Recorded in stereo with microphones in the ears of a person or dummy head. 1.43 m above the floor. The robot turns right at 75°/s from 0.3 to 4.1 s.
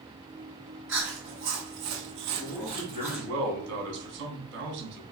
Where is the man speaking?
170° left, 1.3 m; by 5.0 s 60° right, 1.3 m.